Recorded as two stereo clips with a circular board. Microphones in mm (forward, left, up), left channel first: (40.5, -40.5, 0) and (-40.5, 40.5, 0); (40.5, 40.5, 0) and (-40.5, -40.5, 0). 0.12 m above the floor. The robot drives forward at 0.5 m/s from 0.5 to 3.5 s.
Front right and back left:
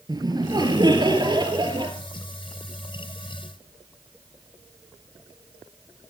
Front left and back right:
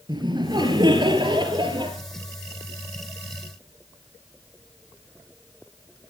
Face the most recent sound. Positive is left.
turn(degrees=180)